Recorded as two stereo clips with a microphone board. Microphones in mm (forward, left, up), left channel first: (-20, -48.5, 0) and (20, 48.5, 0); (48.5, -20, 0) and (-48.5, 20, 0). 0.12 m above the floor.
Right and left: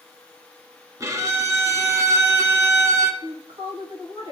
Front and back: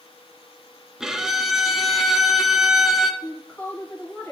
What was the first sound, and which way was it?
A violin, 75° left.